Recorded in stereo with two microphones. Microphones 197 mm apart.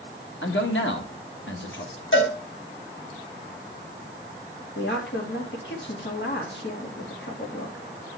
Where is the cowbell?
80° left, 3 m.